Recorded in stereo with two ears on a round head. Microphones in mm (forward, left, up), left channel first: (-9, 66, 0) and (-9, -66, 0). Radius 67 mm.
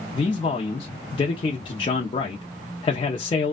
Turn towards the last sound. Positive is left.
turn(degrees=30)  # may be behind; listen again after turning